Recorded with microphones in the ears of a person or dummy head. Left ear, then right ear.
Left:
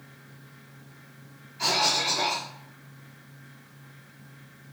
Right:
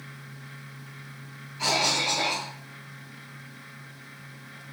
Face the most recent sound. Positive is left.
turn(degrees=0)  # may be behind; listen again after turning